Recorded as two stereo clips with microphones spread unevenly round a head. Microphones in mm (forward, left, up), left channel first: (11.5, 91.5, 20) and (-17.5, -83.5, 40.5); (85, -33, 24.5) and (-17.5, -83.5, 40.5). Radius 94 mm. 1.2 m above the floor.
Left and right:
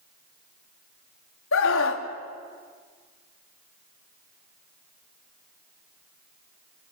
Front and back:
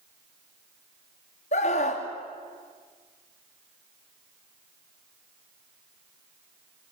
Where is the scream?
70° left, 2.5 m.